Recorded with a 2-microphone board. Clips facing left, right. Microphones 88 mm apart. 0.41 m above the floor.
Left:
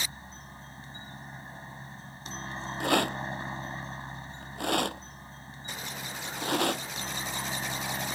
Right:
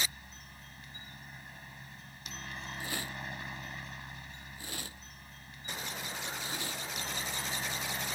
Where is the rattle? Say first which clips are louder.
Left 16 dB; 70° left (ahead or behind).